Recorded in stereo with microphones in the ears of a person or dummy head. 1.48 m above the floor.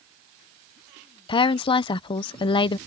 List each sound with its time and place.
1.3 s a woman speaking: 30° left (ahead or behind)